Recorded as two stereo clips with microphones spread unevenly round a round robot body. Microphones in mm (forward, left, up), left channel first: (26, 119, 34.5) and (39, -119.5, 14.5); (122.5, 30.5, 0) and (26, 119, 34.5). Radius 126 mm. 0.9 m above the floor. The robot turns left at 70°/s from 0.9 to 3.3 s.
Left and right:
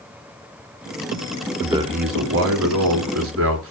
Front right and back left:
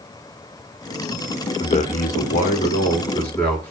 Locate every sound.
1.6 s a man speaking: 5° right, 2.5 m; by 3.7 s 125° right, 2.5 m